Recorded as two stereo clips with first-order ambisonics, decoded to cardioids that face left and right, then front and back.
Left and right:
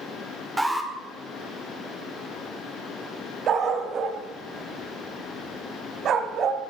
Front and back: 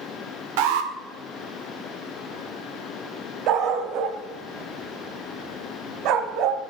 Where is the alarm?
175° right, 1.9 m.